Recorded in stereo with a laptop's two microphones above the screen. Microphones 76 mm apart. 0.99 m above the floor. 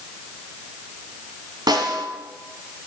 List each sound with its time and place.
1.7 s a snare drum: 60° right (ahead or behind), 1.7 m